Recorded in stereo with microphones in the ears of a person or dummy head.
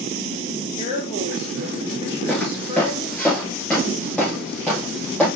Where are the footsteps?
5° left (ahead or behind), 4.5 m.